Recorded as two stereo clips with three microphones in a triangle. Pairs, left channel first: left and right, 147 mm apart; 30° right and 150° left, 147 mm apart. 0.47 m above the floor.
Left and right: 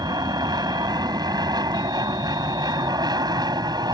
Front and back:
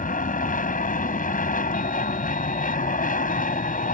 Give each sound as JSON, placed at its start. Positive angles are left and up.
{"t": 0.0, "sound": "an aircraft", "azimuth_deg": -30}